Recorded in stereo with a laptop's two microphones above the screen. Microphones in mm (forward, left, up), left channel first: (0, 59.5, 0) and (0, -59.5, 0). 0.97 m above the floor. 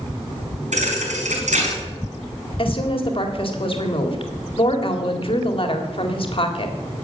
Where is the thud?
85° right, 5 m.